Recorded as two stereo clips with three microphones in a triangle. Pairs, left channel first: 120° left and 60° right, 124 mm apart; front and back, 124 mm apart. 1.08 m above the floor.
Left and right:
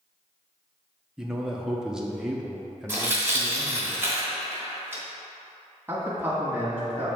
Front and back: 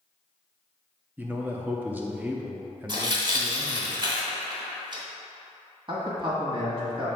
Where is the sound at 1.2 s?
135° right, 0.7 m.